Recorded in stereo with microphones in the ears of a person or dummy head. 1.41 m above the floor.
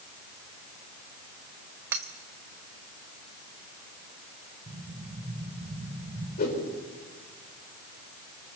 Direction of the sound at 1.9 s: 10° right (ahead or behind).